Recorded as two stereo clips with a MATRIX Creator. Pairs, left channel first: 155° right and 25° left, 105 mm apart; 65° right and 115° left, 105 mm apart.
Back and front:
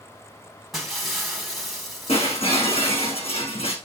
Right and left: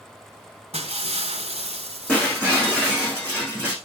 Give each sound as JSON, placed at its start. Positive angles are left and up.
{"t": 0.7, "sound": "breaking glass", "azimuth_deg": 110, "distance_m": 2.5}
{"t": 2.1, "sound": "breaking glass", "azimuth_deg": -150, "distance_m": 6.5}